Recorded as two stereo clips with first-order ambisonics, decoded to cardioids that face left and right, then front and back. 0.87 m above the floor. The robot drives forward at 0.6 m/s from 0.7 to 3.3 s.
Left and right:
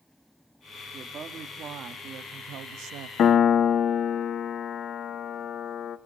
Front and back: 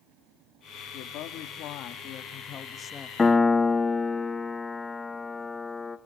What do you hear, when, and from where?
0.9 s a woman speaking: 25° right, 1.8 m; by 3.1 s 75° right, 1.0 m
3.2 s a piano: 70° left, 1.0 m; by 6.0 s 75° left, 1.0 m